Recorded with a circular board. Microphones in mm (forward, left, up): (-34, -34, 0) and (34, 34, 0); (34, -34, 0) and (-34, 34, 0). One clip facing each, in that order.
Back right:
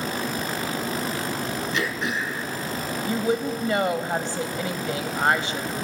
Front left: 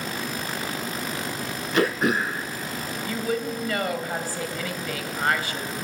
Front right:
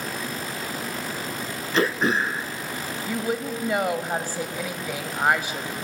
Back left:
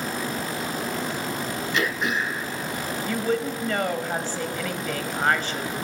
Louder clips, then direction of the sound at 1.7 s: Front left 9 dB, front right 5 dB; 5° left.